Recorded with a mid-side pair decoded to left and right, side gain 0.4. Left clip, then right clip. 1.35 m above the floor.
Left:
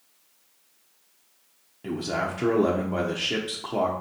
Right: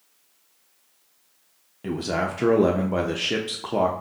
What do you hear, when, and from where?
1.8 s a man speaking: 35° right, 0.5 m